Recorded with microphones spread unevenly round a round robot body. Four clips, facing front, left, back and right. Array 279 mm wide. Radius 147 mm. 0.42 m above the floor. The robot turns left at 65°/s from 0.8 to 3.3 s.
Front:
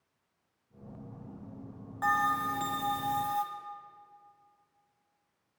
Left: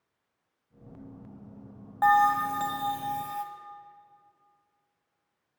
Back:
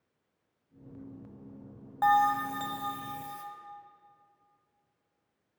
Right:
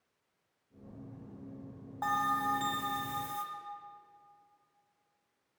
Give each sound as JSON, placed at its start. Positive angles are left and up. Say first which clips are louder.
{"t": 2.0, "sound": "a bell", "louder": "left 10 dB, back 4 dB", "azimuth_deg": 115, "distance_m": 1.0}